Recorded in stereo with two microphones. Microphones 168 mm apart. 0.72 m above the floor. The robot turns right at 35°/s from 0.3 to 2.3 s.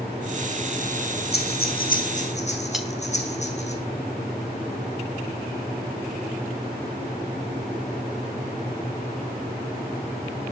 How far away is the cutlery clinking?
About 2.5 m.